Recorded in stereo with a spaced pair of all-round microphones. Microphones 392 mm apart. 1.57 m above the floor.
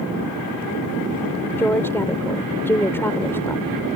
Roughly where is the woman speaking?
Centre.